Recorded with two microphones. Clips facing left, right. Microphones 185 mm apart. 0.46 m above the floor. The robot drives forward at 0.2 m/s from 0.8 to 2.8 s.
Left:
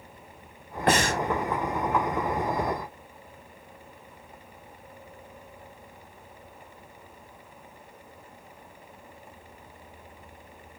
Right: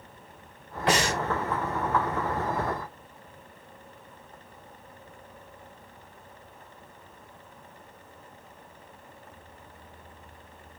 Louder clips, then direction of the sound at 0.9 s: Left 2 dB; 55° left (ahead or behind).